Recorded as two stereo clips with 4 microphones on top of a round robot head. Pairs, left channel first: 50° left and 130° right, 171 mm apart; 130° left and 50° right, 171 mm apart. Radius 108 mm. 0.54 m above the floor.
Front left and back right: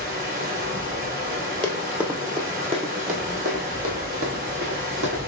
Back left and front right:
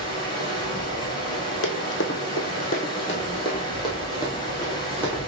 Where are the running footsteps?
135° left, 1.0 m; by 5.2 s 155° right, 2.5 m.